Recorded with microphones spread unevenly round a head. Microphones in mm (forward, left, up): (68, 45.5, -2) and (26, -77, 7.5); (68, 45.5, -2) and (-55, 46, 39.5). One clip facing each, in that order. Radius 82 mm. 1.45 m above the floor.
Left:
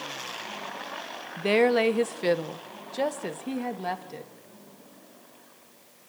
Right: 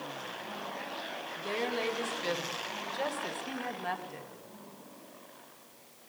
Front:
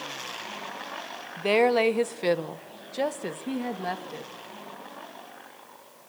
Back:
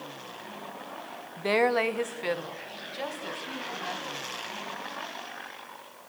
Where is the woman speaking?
75° left, 1.2 m; by 4.3 s 20° left, 3 m.